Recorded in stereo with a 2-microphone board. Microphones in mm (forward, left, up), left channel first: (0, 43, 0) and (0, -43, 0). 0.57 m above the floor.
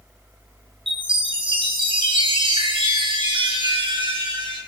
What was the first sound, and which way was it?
A chime, 80° right.